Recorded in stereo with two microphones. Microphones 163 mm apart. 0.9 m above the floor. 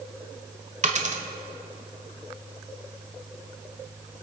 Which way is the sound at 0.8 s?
45° right (ahead or behind).